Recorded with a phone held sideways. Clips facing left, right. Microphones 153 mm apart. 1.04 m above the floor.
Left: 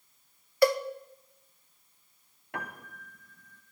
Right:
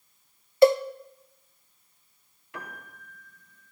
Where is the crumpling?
No crumpling in this recording.